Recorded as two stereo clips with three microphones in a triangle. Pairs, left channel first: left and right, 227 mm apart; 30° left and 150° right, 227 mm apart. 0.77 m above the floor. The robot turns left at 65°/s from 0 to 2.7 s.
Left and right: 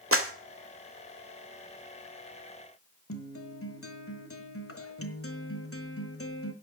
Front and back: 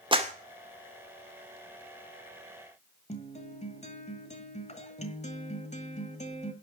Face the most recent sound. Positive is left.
turn(degrees=85)